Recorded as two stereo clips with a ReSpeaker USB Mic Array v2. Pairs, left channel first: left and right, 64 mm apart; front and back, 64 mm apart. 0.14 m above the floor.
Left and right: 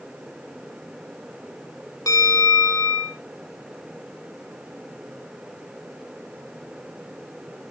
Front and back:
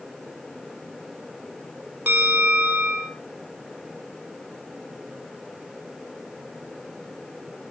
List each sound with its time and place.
2.1 s a bell: 120° left, 4 m